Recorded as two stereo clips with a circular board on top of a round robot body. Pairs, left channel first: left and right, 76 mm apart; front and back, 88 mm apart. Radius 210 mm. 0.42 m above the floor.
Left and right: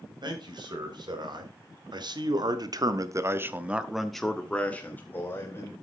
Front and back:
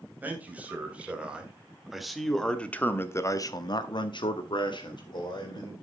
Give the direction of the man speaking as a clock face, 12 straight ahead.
4 o'clock.